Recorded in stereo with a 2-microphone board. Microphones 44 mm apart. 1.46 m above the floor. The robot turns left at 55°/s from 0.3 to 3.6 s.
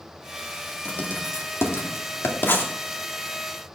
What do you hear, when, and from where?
0.8 s writing: 30° left (ahead or behind), 2 m; by 2.7 s 45° left (ahead or behind), 2 m